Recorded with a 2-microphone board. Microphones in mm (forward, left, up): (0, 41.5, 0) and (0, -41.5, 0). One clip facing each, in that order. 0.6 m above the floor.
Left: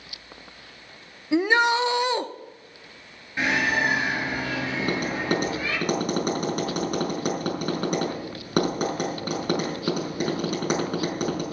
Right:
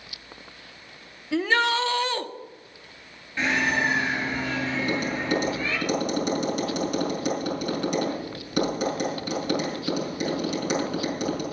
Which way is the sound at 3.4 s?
15° left (ahead or behind).